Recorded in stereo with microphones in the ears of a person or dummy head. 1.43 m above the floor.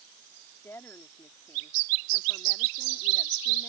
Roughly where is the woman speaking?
Centre.